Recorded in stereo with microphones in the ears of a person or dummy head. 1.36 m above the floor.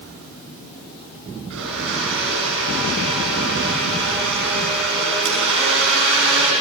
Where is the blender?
65° right (ahead or behind), 6 m.